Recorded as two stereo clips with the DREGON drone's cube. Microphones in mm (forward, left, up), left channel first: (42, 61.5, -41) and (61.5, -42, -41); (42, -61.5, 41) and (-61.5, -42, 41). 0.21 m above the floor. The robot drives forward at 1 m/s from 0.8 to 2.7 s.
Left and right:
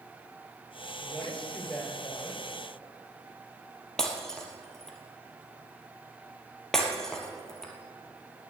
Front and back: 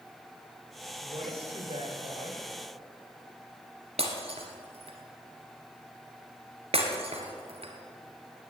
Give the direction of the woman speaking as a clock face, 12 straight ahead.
6 o'clock.